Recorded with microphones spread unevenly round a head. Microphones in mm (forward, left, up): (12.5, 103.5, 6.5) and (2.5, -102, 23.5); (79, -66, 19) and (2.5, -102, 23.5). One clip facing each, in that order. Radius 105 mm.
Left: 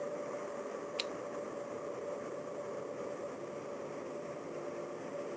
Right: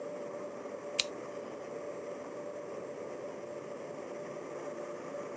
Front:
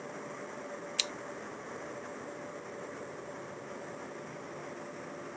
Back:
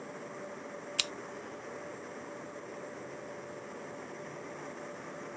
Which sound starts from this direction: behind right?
Scissors, at 1.0 s.